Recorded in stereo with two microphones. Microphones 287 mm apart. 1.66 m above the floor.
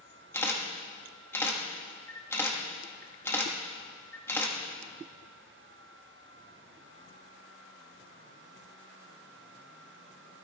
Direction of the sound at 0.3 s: 10° left (ahead or behind).